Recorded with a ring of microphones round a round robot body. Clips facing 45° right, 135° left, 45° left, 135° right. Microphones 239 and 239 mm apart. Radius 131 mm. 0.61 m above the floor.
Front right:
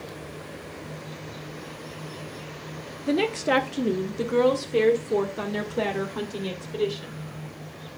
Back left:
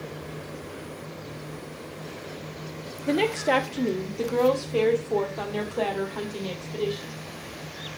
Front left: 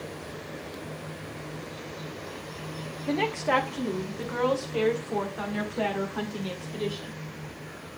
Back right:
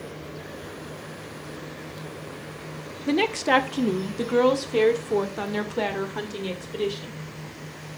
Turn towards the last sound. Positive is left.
turn(degrees=-100)